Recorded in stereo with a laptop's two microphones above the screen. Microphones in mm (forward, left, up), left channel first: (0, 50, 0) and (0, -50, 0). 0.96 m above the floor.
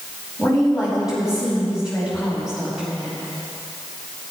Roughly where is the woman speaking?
Centre.